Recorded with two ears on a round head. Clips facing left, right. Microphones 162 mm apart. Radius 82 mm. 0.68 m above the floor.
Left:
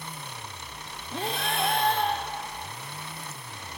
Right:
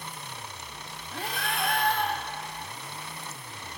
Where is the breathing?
25° left (ahead or behind), 1.2 m.